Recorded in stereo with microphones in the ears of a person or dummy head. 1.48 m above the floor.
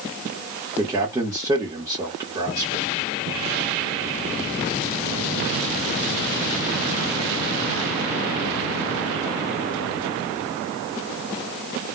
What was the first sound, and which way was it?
A man speaking, 15° right (ahead or behind).